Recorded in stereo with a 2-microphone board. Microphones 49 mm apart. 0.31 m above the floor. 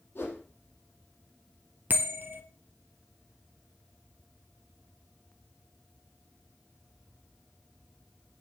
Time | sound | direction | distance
0.1 | a whoosh | 45° left (ahead or behind) | 4 m
1.9 | a bell | 40° right (ahead or behind) | 1.7 m